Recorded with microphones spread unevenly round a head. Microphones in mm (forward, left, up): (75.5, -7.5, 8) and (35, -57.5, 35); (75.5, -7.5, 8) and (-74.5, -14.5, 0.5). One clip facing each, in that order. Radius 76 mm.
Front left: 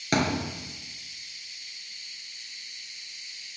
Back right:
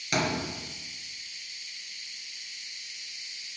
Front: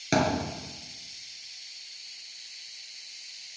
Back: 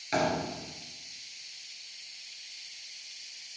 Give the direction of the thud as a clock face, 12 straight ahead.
12 o'clock.